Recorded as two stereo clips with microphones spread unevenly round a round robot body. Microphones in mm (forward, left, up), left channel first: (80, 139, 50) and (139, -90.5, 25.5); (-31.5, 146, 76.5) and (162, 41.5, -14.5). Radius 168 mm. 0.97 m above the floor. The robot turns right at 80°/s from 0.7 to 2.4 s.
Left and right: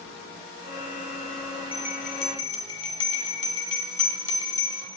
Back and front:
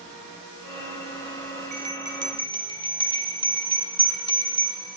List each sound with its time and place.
1.7 s a bell: 35° left, 2 m; by 4.8 s 90° left, 2 m